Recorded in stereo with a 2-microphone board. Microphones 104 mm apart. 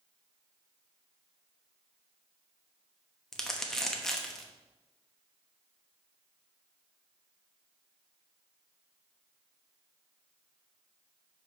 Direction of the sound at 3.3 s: 5° left (ahead or behind).